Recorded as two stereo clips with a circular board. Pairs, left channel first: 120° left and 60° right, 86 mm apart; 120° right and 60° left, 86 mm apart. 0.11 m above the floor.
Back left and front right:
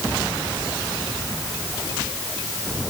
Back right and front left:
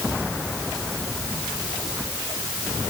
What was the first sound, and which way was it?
Only background noise.